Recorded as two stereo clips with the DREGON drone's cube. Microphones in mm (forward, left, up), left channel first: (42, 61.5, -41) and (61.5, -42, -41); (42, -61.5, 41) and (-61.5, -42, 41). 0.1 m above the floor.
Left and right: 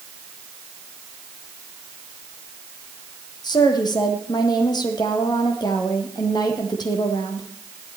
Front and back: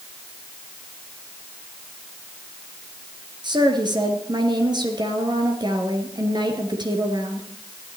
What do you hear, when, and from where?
3.4 s a woman speaking: 135° left, 2.5 m